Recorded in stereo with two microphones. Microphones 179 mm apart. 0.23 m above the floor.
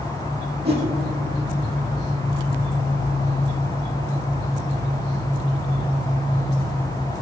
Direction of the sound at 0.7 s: 65° right (ahead or behind).